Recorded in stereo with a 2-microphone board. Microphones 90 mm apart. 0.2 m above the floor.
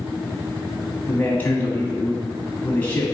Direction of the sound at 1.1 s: 20° left (ahead or behind).